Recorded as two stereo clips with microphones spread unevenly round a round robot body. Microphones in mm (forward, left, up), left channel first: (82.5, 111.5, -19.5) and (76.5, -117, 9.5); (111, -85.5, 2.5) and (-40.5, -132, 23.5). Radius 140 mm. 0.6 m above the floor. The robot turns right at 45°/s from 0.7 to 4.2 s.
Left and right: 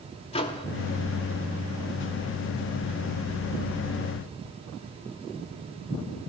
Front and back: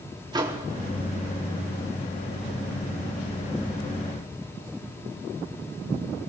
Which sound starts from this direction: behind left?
A microwave, at 0.3 s.